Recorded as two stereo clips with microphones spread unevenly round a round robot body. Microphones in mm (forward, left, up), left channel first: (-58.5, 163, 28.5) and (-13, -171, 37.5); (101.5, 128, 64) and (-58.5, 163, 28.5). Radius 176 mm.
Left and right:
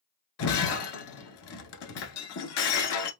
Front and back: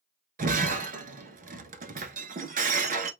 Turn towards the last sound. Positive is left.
turn(degrees=135)